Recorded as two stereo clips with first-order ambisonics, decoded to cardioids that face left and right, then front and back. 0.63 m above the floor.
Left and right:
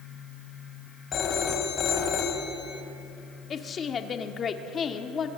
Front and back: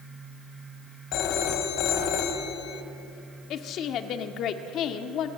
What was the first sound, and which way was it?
A phone ringing, 35° left.